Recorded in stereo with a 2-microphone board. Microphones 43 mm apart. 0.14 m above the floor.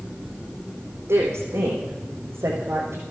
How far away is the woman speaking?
About 7.5 m.